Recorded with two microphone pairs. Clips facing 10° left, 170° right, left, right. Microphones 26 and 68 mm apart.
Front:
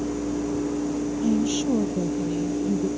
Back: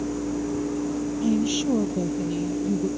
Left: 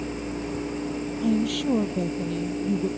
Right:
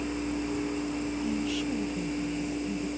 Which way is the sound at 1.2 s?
115° left.